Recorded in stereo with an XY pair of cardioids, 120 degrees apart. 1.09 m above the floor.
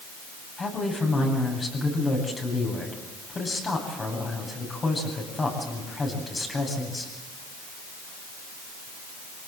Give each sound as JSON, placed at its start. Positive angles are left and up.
{"t": 0.6, "sound": "a woman speaking", "azimuth_deg": 25, "distance_m": 8.5}